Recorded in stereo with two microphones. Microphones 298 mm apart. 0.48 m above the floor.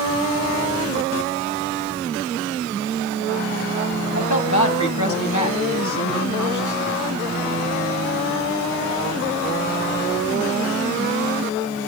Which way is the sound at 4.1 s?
70° left (ahead or behind).